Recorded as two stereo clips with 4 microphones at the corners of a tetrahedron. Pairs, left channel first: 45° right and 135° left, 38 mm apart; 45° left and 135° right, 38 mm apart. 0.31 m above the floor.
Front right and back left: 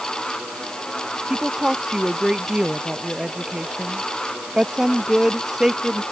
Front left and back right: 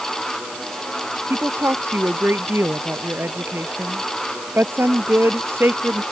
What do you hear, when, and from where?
1.3 s a woman speaking: 150° right